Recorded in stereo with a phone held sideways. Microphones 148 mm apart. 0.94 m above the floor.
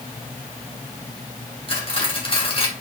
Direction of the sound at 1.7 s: 40° left (ahead or behind).